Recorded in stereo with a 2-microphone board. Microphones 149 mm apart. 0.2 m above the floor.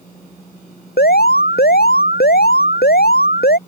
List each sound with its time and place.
1.0 s an alarm: 85° left